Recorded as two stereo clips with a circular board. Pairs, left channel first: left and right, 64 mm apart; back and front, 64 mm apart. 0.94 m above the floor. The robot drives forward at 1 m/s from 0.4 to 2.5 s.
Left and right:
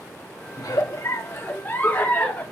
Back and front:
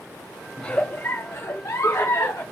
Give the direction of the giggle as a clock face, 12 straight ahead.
9 o'clock.